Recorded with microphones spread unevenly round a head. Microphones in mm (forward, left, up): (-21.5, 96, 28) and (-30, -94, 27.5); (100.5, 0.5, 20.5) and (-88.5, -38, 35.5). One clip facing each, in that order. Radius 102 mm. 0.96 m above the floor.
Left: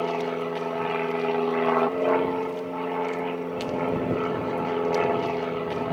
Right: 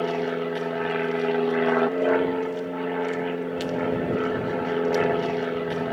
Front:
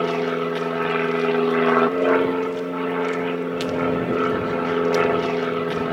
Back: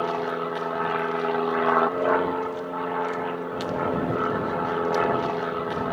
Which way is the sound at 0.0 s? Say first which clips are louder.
Right 1 dB, front 5 dB; 20° right.